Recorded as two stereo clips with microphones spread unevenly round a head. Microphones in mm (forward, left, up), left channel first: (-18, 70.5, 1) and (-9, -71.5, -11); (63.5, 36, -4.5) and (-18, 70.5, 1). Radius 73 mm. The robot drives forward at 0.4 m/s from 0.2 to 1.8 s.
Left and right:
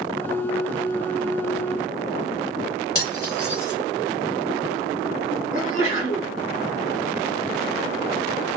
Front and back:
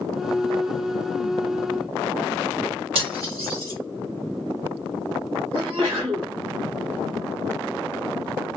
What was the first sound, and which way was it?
Cutlery clinking, 155° left.